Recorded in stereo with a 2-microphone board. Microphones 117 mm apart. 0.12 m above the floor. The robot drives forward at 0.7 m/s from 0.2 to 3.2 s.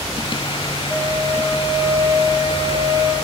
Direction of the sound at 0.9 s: Centre (ahead or behind).